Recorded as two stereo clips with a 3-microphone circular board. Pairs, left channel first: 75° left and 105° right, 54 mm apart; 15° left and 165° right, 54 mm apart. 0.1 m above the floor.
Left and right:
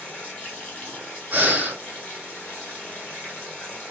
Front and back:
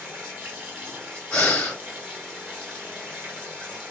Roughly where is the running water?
Behind left.